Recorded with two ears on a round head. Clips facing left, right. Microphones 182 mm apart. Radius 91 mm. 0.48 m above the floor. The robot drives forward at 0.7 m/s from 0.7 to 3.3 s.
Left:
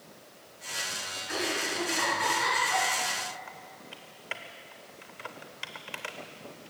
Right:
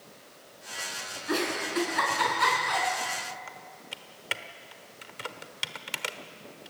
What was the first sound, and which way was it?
A giggle, 70° right (ahead or behind).